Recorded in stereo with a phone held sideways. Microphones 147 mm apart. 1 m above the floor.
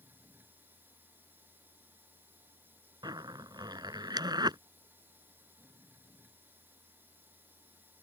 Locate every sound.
0.0 s a machine running: 15° right (ahead or behind)
3.0 s a zipper: 30° right (ahead or behind)